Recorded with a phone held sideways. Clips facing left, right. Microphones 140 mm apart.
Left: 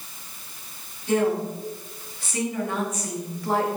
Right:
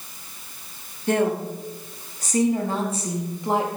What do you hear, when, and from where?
1.1 s a woman speaking: 55° right (ahead or behind), 2.5 m; by 3.7 s 15° right (ahead or behind), 2.0 m